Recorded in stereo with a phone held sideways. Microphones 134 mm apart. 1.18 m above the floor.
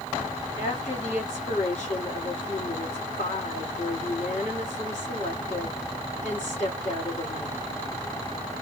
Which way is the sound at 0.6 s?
60° left (ahead or behind).